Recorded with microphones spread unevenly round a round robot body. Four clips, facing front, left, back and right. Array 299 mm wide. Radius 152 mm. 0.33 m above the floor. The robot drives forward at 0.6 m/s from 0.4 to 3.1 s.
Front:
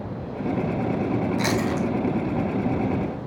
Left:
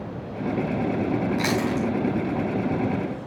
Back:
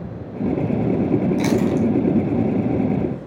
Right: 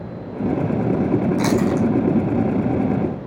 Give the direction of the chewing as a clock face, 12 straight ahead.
5 o'clock.